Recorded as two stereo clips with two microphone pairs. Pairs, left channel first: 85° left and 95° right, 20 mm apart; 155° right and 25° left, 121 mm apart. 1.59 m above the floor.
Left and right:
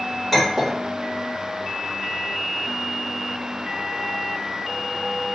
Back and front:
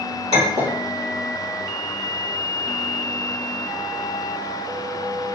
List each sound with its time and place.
0.3 s a clink: 5° right, 1.7 m